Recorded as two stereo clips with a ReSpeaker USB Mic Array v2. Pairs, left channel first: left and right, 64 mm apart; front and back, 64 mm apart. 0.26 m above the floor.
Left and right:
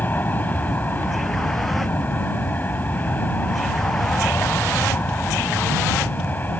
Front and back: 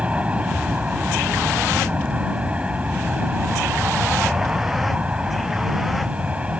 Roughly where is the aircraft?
Behind left.